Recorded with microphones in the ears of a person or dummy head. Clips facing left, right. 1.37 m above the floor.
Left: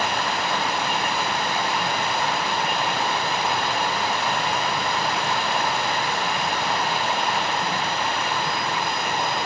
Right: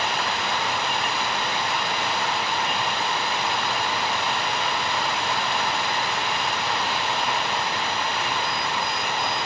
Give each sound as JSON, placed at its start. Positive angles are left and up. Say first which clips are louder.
{"t": 0.0, "sound": "running water", "louder": "left 2 dB", "side_deg": 50, "distance_m": 5.0}